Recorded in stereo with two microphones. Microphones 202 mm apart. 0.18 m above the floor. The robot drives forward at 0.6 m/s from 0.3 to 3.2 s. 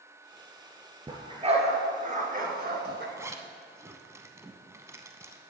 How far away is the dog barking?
About 1.6 m.